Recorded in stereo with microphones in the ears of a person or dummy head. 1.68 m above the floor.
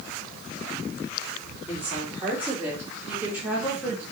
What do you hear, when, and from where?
1.7 s a woman speaking: 15° right (ahead or behind), 6 m; by 4.0 s 10° right (ahead or behind), 2.5 m